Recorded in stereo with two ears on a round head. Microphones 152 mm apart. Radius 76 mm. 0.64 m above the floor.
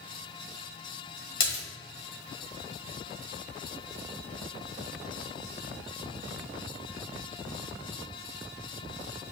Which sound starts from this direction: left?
A splash, at 1.4 s.